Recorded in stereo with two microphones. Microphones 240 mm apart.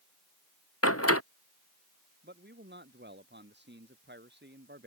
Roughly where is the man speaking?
Right.